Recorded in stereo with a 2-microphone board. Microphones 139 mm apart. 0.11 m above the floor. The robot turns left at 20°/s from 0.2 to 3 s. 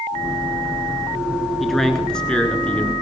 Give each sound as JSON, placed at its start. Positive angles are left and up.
{"t": 1.6, "sound": "a man speaking", "side_deg": 0, "distance_m": 1.1}